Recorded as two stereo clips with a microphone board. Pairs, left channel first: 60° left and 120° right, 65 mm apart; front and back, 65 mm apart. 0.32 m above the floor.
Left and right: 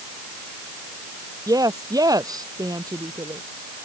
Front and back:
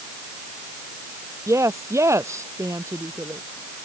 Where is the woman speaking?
135° right.